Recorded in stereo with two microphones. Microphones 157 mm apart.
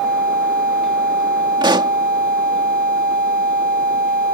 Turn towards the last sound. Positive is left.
turn(degrees=-30)  # may be behind; listen again after turning